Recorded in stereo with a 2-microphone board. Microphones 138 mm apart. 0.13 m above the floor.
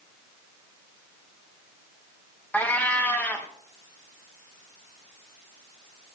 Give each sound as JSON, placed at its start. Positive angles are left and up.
{"t": 2.5, "sound": "a cat meowing", "side_deg": 10, "distance_m": 1.8}